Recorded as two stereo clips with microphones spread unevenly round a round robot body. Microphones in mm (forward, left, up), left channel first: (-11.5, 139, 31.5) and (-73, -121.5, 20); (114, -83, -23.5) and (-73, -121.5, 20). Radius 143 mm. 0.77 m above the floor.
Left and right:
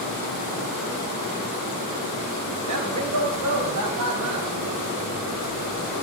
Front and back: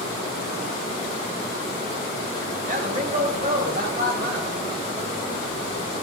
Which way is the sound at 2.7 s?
115° right.